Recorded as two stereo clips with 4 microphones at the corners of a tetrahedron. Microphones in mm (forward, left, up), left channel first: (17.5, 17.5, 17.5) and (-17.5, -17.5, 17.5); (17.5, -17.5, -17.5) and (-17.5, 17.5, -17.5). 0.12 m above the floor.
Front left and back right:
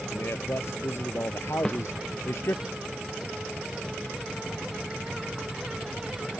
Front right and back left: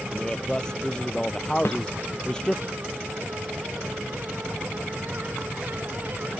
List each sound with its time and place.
0.1 s a man speaking: 25° left
1.6 s a snare drum: 30° right